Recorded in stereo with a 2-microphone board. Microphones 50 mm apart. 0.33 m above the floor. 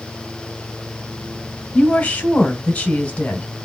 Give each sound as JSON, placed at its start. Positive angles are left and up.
{"t": 1.7, "sound": "a woman speaking", "side_deg": 30, "distance_m": 1.6}